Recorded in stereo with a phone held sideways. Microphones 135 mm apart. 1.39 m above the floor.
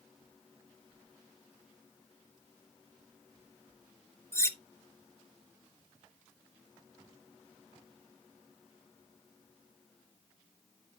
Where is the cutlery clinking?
20° left (ahead or behind), 0.5 m.